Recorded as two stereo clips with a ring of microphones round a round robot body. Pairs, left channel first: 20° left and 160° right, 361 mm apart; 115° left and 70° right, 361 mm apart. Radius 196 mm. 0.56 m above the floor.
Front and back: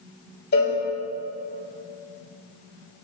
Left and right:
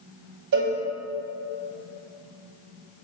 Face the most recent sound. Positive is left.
turn(degrees=-40)